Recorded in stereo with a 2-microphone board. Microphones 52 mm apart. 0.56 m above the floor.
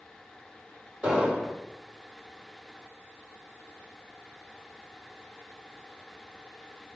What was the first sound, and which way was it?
An explosion, 25° right (ahead or behind).